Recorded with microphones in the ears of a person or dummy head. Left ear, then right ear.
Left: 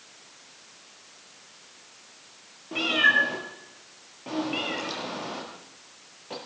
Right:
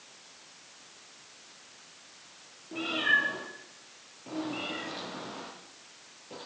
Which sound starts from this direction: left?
A cat meowing, at 2.7 s.